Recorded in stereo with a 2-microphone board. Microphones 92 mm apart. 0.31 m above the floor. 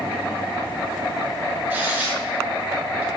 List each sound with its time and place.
1.7 s tearing paper: 20° right (ahead or behind), 3.5 m